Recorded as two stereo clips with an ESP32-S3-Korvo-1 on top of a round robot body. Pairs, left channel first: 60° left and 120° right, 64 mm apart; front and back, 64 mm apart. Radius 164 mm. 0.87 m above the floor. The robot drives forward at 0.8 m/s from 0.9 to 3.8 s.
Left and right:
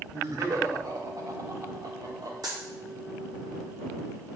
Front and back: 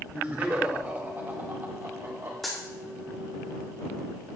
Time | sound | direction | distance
0.1 | laughter | 110° right | 2.5 m
2.4 | a dropped coin | 85° right | 0.7 m